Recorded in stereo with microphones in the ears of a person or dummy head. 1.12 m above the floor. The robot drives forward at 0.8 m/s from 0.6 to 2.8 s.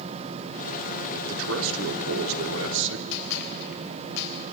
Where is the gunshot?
65° left (ahead or behind), 3.5 m.